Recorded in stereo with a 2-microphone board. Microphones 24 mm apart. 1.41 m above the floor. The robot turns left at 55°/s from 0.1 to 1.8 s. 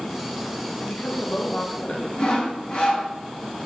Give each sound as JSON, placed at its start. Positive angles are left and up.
{"t": 0.8, "sound": "a woman speaking", "azimuth_deg": 95, "distance_m": 1.6}
{"t": 2.2, "sound": "sawing", "side_deg": 35, "distance_m": 2.5}